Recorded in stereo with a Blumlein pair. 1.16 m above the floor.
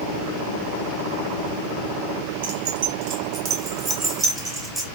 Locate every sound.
2.4 s keys jangling: 55° right, 0.9 m; by 4.8 s 10° right, 1.8 m